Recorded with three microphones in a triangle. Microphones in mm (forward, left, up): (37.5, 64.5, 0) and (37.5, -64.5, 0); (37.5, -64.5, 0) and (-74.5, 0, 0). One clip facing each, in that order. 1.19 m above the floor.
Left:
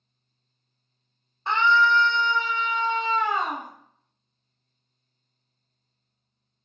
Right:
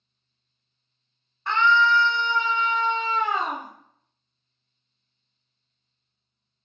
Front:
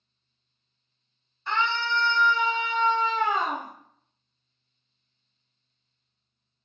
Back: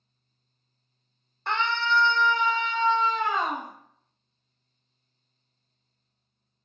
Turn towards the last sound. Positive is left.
turn(degrees=-85)